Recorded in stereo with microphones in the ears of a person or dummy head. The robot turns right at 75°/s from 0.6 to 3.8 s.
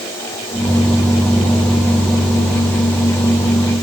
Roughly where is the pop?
I don't hear a pop.